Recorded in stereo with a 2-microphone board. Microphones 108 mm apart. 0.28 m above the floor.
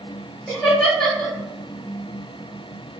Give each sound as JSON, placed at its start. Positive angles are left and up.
{"t": 0.5, "sound": "laughter", "side_deg": 10, "distance_m": 1.5}